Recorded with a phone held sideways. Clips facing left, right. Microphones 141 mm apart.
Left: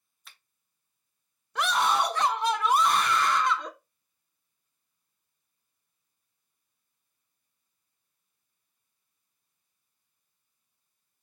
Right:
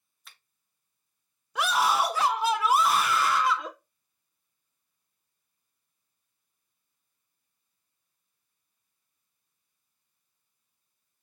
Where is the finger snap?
Centre (ahead or behind), 0.7 m.